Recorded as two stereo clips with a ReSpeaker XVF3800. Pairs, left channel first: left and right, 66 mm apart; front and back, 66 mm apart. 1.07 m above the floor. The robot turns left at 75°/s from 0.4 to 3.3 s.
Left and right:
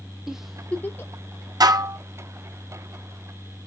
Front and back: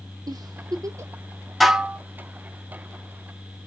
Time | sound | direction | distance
0.3 | a giggle | 175° right | 0.5 m
1.6 | dishes clattering | 90° right | 0.6 m